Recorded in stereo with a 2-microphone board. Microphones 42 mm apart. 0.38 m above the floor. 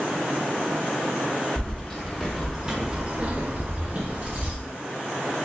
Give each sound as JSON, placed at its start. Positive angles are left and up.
{"t": 1.6, "sound": "keys jangling", "side_deg": 10, "distance_m": 1.1}